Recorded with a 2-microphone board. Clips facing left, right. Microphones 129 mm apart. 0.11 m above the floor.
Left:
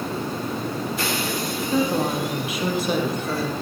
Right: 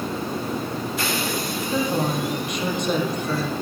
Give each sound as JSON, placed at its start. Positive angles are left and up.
{"t": 1.7, "sound": "a woman speaking", "side_deg": 5, "distance_m": 2.5}